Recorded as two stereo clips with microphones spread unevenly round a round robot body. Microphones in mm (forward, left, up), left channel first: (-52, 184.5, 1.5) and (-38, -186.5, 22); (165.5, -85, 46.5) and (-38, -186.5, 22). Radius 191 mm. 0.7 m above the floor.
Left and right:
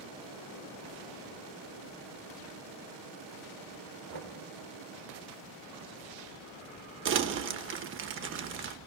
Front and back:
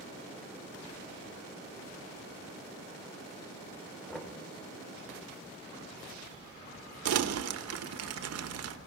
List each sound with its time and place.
4.1 s knocking: 60° right, 2.5 m
7.0 s crumpling: 145° right, 1.1 m